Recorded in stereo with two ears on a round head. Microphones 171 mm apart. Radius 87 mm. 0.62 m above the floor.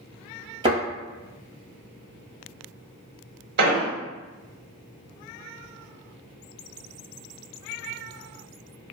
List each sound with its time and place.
0.6 s a thud: 25° right (ahead or behind), 1.2 m
3.6 s an explosion: 55° right (ahead or behind), 0.7 m